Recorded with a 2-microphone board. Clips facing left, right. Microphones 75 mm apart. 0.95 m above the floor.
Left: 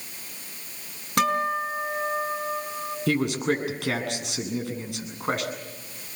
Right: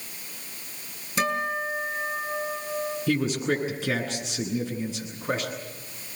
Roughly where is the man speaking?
Left.